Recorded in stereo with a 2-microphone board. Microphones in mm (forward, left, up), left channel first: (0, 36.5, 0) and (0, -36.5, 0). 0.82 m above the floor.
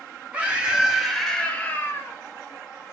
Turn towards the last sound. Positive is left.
turn(degrees=45)  # may be behind; listen again after turning